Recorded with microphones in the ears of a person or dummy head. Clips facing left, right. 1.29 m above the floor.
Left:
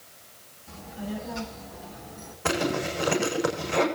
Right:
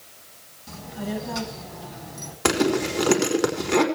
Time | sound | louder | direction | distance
0.7 | a child speaking | right 4 dB | 75° right (ahead or behind) | 6.5 m
2.5 | a zipper | right 6 dB | 85° right | 4.5 m